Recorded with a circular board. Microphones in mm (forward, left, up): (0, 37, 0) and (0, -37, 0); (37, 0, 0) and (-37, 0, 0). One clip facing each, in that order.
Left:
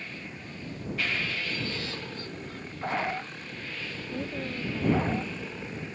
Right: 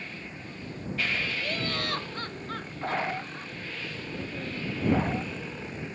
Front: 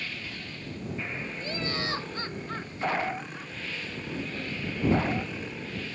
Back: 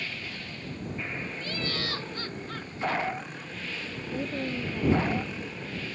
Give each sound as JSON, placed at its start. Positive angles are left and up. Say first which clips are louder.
{"t": 1.4, "sound": "laughter", "louder": "right 2 dB, front 3 dB", "azimuth_deg": -65}
{"t": 4.1, "sound": "a woman speaking", "louder": "left 3 dB, back 5 dB", "azimuth_deg": 155}